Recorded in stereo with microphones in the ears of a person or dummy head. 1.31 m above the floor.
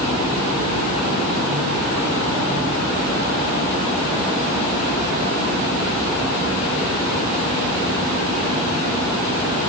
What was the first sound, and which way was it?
Only background noise.